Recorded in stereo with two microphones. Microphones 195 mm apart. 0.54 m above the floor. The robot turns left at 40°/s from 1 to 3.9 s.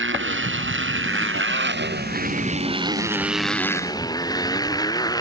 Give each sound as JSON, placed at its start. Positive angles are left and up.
{"t": 0.0, "sound": "a motorcycle", "azimuth_deg": -85}